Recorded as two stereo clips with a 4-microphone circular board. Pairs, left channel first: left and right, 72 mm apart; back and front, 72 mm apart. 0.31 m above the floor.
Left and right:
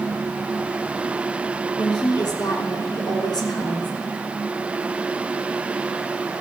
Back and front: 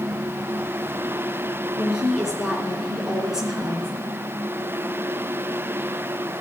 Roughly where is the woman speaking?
Left.